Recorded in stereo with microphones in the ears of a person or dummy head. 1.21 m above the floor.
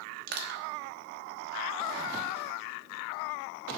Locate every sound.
0.3 s crushing: 55° right (ahead or behind), 0.9 m